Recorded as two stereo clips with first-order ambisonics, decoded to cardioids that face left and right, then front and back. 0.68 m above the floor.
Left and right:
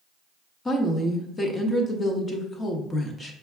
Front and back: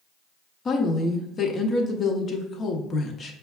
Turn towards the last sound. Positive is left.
turn(degrees=35)